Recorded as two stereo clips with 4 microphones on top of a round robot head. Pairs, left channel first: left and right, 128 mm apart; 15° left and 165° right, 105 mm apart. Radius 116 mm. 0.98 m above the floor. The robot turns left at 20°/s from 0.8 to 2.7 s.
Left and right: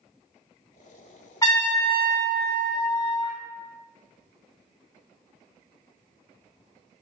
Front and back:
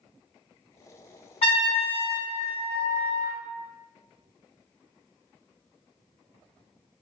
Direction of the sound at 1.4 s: 30° left.